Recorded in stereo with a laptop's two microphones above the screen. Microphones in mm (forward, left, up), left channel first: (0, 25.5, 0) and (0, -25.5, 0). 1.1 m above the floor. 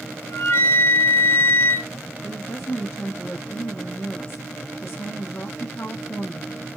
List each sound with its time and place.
0.2 s a flute: 55° left (ahead or behind), 1.5 m
2.2 s a woman speaking: 50° left (ahead or behind), 0.9 m